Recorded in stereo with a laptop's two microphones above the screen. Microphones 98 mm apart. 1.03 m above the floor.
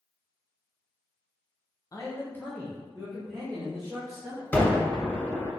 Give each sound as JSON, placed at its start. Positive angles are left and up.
{"t": 1.9, "sound": "a man speaking", "side_deg": 35, "distance_m": 0.6}
{"t": 4.5, "sound": "a gunshot", "side_deg": 15, "distance_m": 1.9}